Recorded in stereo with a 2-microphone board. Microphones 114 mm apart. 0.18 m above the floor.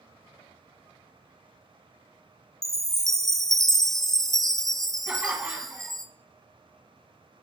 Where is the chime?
5° left (ahead or behind), 0.6 m.